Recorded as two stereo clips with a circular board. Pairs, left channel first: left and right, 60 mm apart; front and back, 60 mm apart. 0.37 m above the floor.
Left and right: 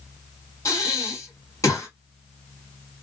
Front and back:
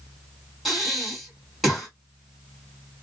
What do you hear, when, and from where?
0.7 s breathing: 90° left, 2.5 m